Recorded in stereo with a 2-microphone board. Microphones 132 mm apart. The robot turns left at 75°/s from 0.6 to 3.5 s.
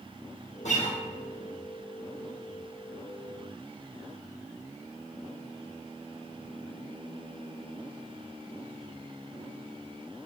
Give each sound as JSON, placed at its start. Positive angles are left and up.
{"t": 0.7, "sound": "a guitar", "side_deg": 65, "distance_m": 1.1}